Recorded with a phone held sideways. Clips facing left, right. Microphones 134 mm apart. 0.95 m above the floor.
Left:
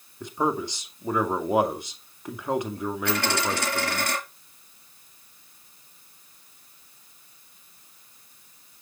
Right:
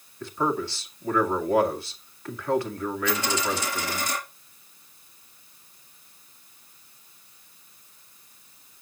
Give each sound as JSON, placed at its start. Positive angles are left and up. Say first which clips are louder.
{"t": 0.2, "sound": "a man speaking", "louder": "even", "side_deg": 15, "distance_m": 2.0}
{"t": 3.0, "sound": "a dropped coin", "louder": "left 1 dB", "side_deg": 70, "distance_m": 4.0}